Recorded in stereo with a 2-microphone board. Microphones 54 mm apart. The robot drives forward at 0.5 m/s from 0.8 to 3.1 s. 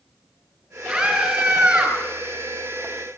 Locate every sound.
0.9 s a scream: 15° right (ahead or behind), 8 m